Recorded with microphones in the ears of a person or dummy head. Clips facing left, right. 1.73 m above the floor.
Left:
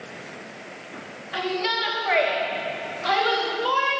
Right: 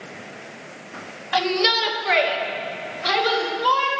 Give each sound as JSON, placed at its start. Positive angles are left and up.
{"t": 1.3, "sound": "a shout", "side_deg": -75, "distance_m": 1.4}